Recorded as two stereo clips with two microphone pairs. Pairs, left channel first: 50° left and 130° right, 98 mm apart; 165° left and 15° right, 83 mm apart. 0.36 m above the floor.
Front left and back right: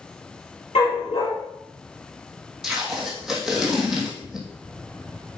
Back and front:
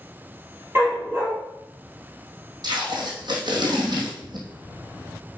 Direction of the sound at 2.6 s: 45° right.